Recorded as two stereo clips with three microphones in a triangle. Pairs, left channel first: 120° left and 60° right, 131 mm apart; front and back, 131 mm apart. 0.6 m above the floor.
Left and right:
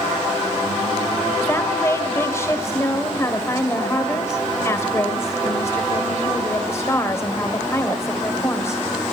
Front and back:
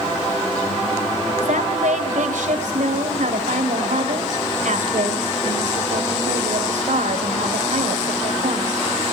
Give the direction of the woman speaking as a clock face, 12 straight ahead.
6 o'clock.